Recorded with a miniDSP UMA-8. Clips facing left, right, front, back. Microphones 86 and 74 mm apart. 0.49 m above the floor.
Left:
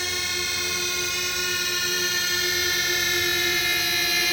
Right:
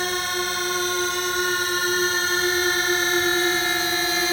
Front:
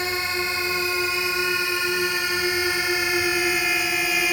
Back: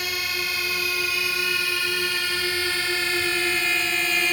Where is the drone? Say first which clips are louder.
Right 6 dB, front 4 dB; 55° right; by 4.3 s 75° right.